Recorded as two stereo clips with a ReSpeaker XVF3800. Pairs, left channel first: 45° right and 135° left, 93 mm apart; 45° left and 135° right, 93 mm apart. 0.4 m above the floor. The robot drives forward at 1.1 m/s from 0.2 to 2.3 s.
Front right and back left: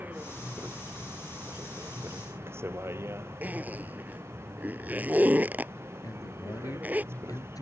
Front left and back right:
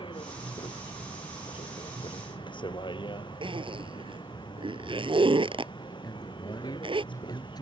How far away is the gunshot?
No gunshot in this recording.